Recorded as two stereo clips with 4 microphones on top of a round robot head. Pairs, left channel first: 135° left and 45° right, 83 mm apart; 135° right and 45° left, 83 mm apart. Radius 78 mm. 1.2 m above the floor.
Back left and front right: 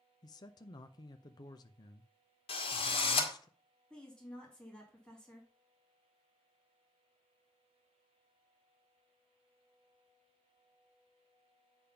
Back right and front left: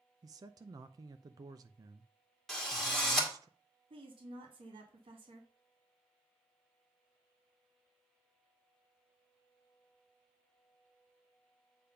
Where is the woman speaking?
55° left, 2.5 m.